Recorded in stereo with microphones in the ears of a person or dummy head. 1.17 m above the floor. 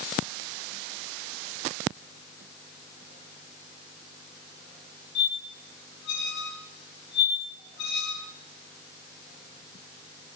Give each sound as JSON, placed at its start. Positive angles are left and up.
{"t": 5.2, "sound": "a squeak", "side_deg": 65, "distance_m": 4.5}